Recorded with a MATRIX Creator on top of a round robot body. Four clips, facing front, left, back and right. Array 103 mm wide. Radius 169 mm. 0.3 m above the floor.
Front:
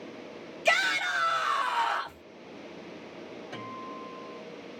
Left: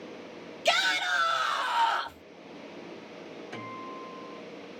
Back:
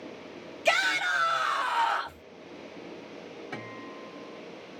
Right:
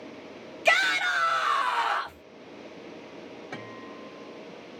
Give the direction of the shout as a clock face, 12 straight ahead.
3 o'clock.